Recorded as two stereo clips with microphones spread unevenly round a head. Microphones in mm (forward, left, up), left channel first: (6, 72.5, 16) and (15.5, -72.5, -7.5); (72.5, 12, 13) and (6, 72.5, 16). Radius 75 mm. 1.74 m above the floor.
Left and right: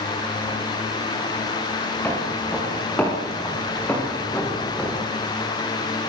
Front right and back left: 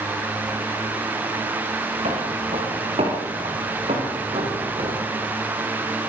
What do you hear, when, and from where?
2.0 s footsteps: 175° left, 8 m; by 5.1 s 170° left, 5 m